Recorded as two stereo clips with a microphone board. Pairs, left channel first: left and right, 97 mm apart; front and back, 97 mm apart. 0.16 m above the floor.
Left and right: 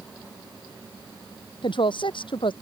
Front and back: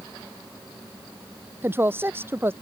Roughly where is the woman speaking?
Behind left.